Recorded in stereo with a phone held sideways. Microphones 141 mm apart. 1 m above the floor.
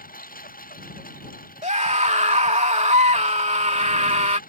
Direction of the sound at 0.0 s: 90° left.